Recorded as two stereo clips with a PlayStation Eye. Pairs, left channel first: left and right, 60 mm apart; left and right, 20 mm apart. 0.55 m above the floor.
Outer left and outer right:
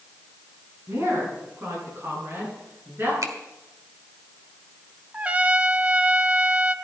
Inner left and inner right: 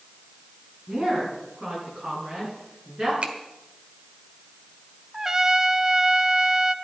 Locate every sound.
0.9 s a woman speaking: 45° right (ahead or behind), 6.5 m; by 3.1 s 35° right (ahead or behind), 9 m
3.2 s a finger snap: 65° right (ahead or behind), 1.5 m
5.1 s a trumpet: 20° right (ahead or behind), 0.7 m